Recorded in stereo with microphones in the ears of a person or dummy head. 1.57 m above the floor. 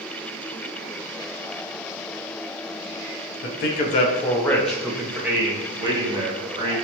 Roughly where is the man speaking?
Left.